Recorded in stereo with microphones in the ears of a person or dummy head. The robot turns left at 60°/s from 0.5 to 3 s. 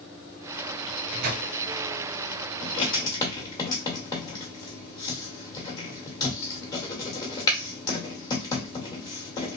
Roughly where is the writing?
Left.